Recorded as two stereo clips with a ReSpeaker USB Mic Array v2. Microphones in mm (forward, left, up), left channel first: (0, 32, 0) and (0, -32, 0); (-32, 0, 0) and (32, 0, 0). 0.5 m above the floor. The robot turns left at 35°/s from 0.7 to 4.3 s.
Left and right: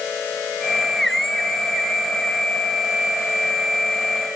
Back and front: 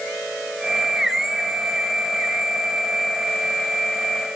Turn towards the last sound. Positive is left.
No sound to turn to.